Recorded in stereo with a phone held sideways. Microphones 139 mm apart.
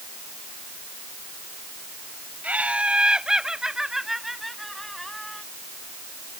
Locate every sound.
2.4 s laughter: 10° right (ahead or behind); by 5.4 s 5° left (ahead or behind)